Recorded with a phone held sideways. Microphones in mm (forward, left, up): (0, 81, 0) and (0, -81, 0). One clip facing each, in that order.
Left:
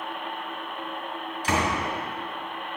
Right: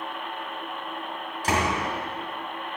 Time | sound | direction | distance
1.4 | a door slam | 45° right (ahead or behind) | 2.5 m